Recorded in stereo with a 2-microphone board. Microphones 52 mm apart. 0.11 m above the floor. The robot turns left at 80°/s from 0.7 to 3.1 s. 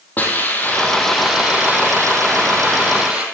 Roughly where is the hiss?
Ahead left.